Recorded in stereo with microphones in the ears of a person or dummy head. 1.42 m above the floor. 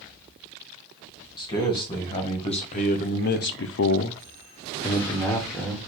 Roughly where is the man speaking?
Left.